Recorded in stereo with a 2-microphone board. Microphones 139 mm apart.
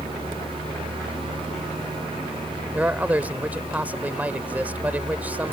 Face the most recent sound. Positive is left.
turn(degrees=-10)  # may be behind; listen again after turning